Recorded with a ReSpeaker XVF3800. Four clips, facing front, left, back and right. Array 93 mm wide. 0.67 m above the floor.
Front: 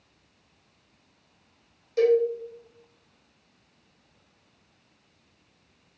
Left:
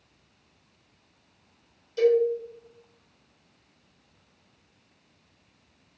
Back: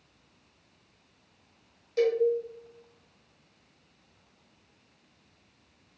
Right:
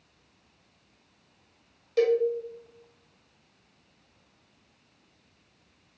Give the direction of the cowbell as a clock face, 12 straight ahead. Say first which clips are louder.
Left 2 dB, front 5 dB; 3 o'clock.